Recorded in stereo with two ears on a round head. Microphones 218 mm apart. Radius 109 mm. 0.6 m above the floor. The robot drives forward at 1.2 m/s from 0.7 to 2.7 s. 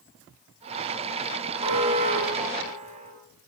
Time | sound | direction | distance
1.6 | an alarm | 25° right (ahead or behind) | 7 m